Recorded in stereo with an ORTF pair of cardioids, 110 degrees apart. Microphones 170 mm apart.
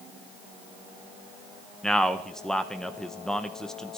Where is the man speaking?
5° left, 0.9 m.